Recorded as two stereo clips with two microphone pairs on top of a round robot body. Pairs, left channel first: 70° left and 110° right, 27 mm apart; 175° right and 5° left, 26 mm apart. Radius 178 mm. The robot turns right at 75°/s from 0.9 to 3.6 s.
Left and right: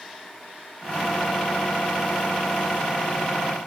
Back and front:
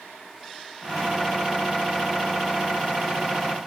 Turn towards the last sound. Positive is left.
No sound to turn to.